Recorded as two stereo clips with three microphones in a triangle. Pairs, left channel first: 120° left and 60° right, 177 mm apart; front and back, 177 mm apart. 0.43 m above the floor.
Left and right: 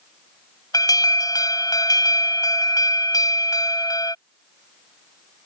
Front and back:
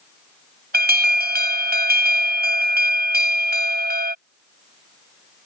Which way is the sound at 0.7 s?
170° right.